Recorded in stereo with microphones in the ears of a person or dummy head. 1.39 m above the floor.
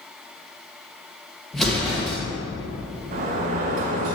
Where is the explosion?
5° left (ahead or behind), 1.9 m.